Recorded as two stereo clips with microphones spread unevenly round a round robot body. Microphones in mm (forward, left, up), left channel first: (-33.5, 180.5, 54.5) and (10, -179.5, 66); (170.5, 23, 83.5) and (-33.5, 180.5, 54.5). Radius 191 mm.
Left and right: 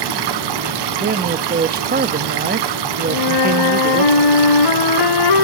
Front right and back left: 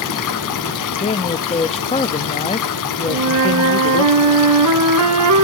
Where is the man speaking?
80° right, 0.6 m.